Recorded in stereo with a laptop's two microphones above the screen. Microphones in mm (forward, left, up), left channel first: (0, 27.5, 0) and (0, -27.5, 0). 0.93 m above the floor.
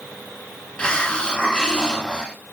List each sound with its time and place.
0.8 s a hiss: 15° left (ahead or behind), 1.2 m